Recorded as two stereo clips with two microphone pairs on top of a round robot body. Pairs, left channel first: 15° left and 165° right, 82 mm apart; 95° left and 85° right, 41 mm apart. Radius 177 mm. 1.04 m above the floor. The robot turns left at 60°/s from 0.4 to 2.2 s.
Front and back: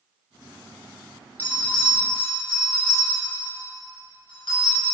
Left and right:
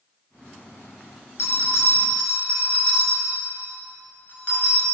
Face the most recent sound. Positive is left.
turn(degrees=35)